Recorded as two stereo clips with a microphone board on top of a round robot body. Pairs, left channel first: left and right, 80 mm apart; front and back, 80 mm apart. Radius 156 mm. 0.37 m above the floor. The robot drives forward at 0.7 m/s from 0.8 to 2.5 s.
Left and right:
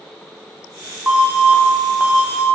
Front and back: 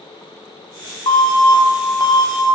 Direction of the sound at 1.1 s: 15° right.